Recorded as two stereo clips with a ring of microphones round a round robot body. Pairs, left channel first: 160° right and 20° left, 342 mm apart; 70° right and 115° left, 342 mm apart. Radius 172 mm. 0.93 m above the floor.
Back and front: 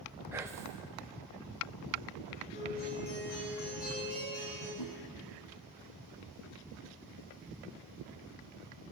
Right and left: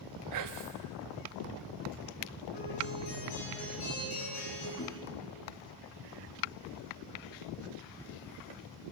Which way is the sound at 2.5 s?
90° right.